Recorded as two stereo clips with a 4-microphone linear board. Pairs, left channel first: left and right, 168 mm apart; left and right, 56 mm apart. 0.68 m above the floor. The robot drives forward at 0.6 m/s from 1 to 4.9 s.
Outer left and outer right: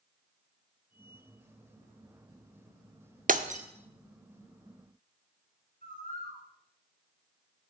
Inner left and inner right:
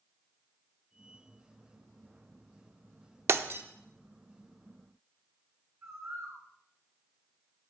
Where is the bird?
55° right (ahead or behind), 3.5 m.